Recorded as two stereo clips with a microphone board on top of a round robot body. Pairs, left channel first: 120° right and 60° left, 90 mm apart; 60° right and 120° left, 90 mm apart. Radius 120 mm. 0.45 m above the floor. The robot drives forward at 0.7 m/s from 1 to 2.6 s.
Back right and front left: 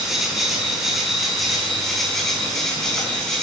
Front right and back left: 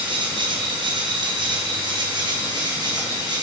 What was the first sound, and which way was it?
An insect, 150° left.